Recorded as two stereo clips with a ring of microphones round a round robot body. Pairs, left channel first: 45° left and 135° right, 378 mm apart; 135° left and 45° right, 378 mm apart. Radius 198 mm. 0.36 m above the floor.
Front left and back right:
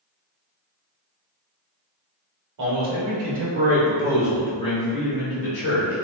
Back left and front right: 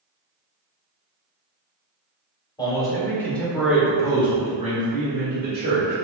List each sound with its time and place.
2.6 s a man speaking: 150° right, 1.2 m; by 6.0 s 15° left, 1.3 m